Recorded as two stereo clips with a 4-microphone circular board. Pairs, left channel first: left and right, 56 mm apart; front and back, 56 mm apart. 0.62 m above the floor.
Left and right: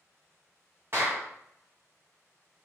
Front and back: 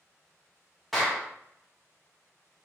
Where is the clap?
85° right, 1.1 m.